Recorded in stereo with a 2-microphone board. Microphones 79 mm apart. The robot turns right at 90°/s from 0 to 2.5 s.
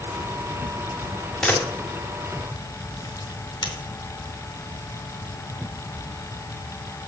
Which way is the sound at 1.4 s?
5° left (ahead or behind).